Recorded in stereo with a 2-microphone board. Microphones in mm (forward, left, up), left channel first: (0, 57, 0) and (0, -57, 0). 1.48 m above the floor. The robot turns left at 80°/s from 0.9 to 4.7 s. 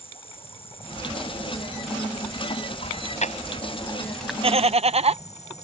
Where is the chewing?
65° left (ahead or behind); by 4.3 s 5° right (ahead or behind).